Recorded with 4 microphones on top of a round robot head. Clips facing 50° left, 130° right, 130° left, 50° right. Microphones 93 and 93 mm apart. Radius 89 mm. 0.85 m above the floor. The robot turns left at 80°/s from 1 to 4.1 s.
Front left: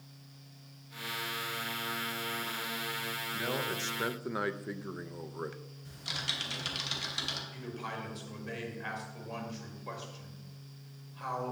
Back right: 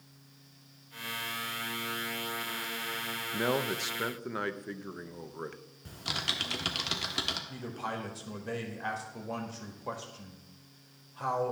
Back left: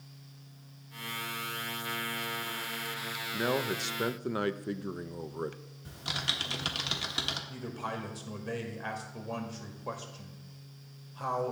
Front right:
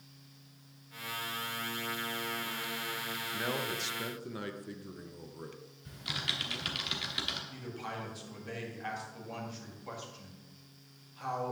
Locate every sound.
3.3 s a man speaking: 165° right, 0.5 m; by 5.6 s 135° left, 0.5 m
5.8 s typing on a keyboard: 170° right, 1.1 m
7.5 s a man speaking: 175° left, 1.8 m